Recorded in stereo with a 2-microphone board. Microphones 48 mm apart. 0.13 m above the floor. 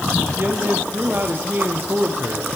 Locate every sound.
0.4 s a man speaking: 45° right (ahead or behind), 4 m